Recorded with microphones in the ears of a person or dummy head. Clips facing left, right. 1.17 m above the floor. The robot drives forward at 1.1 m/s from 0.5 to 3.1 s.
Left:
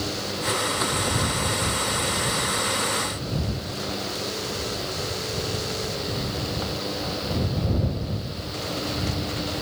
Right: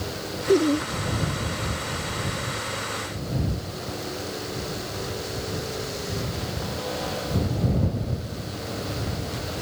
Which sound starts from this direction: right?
Laughter, at 0.5 s.